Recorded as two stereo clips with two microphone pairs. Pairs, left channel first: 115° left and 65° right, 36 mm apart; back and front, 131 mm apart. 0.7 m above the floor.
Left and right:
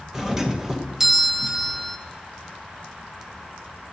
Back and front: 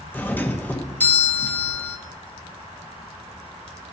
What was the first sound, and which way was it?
A doorbell, 125° right.